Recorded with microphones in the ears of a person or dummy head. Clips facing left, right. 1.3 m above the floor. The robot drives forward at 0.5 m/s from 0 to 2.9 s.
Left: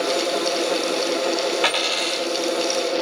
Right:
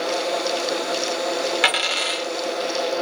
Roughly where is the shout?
I don't hear a shout.